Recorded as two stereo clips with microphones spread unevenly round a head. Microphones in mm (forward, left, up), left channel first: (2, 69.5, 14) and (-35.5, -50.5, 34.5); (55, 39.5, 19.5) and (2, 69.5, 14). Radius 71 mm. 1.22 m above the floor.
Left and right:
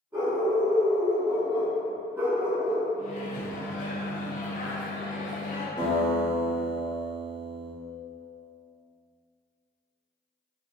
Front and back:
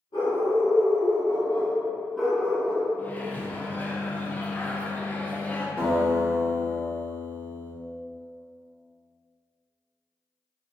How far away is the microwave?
About 0.6 m.